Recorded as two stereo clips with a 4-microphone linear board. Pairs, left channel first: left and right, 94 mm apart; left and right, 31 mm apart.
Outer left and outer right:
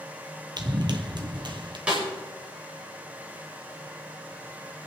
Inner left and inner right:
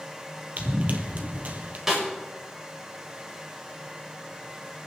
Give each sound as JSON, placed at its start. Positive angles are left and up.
{"t": 0.6, "sound": "running footsteps", "side_deg": -50, "distance_m": 1.7}
{"t": 1.9, "sound": "a snare drum", "side_deg": -15, "distance_m": 6.0}